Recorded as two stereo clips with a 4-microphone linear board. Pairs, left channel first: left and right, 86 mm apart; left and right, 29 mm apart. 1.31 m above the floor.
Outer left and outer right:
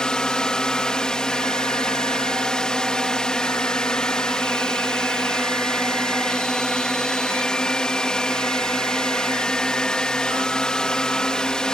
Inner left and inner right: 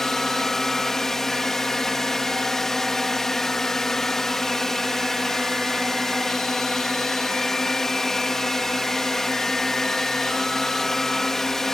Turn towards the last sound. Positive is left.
turn(degrees=10)  # may be behind; listen again after turning